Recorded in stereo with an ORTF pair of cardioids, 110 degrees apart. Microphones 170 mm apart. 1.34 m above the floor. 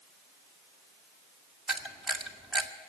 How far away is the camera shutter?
About 1.8 m.